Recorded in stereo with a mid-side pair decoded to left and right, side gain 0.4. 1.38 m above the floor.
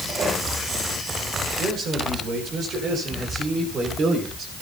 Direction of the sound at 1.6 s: 65° right.